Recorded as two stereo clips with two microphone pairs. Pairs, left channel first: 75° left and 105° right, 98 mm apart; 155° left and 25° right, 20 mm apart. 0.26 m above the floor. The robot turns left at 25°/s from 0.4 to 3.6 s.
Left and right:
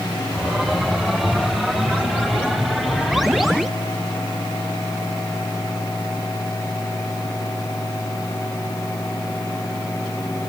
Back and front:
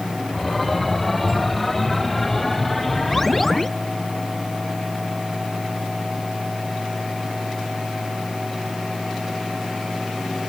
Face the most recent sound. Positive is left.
No sound to turn to.